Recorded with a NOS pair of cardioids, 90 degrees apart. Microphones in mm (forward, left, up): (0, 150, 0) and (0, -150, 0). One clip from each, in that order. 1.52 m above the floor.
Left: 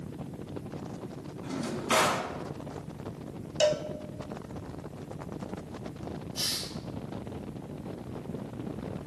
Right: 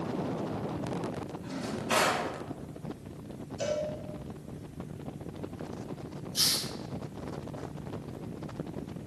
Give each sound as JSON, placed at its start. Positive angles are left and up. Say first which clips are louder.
{"t": 1.4, "sound": "a drawer", "louder": "left 4 dB", "azimuth_deg": 15, "distance_m": 2.0}
{"t": 3.6, "sound": "a cowbell", "louder": "left 6 dB", "azimuth_deg": 55, "distance_m": 0.8}
{"t": 6.3, "sound": "a hiss", "louder": "right 4 dB", "azimuth_deg": -60, "distance_m": 1.2}